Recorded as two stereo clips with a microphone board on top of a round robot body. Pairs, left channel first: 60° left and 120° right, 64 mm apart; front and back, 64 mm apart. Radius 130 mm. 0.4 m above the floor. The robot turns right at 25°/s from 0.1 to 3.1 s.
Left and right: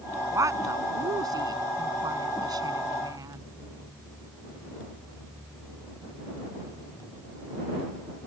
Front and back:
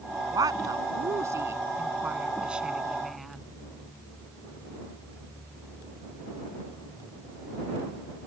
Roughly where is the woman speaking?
Behind.